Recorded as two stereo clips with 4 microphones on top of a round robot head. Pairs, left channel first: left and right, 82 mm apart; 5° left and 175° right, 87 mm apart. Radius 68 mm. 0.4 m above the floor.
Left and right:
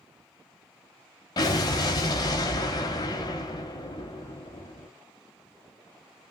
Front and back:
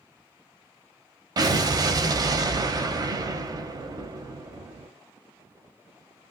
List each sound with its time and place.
1.4 s an explosion: 140° left, 0.7 m